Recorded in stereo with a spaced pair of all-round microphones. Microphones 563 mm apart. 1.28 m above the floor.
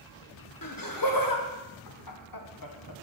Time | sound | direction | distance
0.6 | laughter | 35° left (ahead or behind) | 1.0 m